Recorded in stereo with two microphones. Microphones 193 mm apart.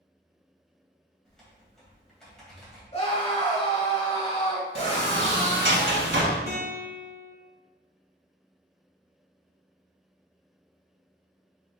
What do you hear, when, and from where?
1.2 s typing on a keyboard: 5° left (ahead or behind), 1.8 m
2.9 s a scream: 30° left (ahead or behind), 1.5 m
4.8 s a sliding door: 75° right (ahead or behind), 1.0 m
6.5 s a guitar: 50° left (ahead or behind), 1.5 m